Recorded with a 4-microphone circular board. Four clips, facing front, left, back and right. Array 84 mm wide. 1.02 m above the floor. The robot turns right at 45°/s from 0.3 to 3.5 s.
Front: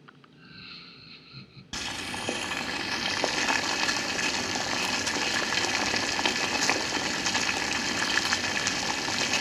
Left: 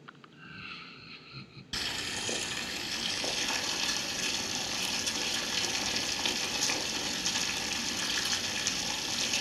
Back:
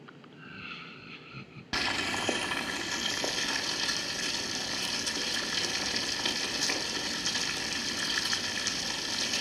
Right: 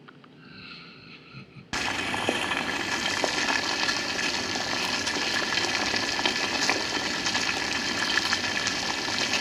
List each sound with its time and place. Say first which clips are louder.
0.3 s laughter: left 1 dB, back 6 dB; 150° left, 0.6 m; by 1.6 s 150° right, 0.6 m
1.7 s boiling: right 10 dB, back 4 dB; 115° right, 0.7 m; by 9.4 s 35° right, 0.7 m